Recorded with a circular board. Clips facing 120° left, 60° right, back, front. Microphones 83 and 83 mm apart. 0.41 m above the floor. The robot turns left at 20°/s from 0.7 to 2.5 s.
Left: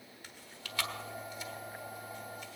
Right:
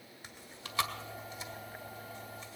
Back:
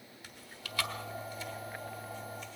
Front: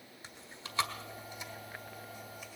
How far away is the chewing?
About 1.5 m.